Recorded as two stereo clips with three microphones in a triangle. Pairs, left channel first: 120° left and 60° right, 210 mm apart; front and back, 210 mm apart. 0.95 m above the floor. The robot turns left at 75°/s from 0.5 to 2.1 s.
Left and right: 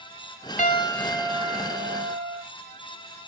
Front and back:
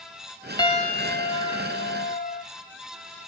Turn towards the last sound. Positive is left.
turn(degrees=-45)